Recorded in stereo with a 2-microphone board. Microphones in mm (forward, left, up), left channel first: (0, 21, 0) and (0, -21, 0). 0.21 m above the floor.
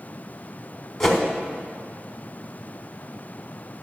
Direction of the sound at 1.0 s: 5° left (ahead or behind).